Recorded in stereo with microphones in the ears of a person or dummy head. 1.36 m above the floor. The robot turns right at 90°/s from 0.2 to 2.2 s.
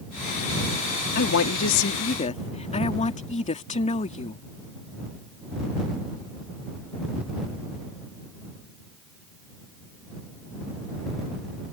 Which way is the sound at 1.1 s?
50° left.